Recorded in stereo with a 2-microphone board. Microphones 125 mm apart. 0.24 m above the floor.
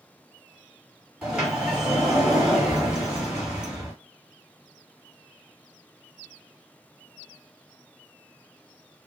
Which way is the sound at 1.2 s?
10° right (ahead or behind).